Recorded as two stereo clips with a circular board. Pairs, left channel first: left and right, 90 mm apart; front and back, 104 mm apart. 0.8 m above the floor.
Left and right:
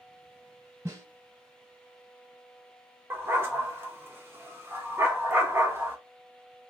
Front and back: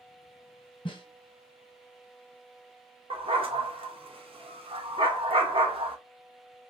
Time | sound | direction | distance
0.8 | a snare drum | 40° right | 1.3 m
3.1 | a dog barking | 155° right | 0.7 m